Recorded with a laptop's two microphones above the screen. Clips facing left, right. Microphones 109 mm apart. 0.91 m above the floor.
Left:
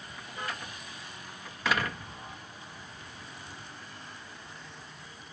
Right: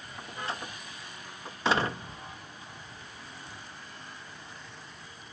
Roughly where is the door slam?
Right.